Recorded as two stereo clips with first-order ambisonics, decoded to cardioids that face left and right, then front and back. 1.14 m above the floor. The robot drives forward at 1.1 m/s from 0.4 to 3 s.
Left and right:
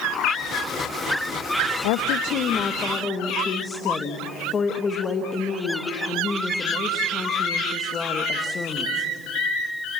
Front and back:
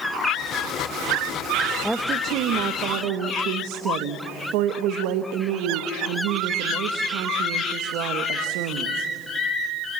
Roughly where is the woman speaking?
Left.